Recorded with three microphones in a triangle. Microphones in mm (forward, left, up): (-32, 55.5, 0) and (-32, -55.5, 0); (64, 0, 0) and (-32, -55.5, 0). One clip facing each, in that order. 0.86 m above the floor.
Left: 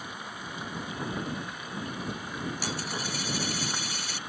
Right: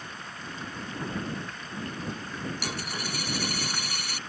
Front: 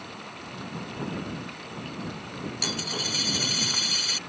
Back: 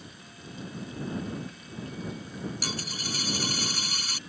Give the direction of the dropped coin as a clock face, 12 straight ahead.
3 o'clock.